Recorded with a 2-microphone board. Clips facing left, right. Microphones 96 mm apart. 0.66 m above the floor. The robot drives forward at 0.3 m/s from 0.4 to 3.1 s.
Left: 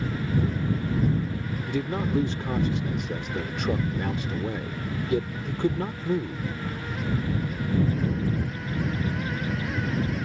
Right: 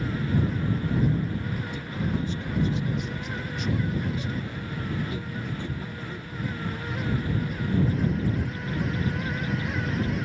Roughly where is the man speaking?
Left.